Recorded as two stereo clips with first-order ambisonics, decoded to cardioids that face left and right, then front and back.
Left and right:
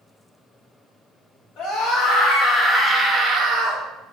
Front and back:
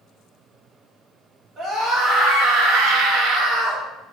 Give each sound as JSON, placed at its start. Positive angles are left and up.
{"t": 1.6, "sound": "a scream", "azimuth_deg": 130, "distance_m": 1.4}